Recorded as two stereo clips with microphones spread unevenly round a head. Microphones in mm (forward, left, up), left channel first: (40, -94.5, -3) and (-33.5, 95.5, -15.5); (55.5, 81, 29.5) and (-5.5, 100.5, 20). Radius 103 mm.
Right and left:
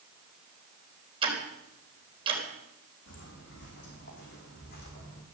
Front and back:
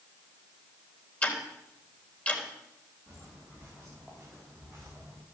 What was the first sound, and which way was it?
Ticking, 45° left.